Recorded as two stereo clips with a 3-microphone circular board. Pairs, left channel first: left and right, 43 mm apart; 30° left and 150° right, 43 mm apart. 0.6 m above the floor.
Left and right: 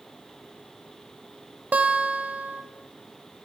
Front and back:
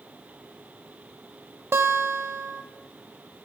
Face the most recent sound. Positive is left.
turn(degrees=-145)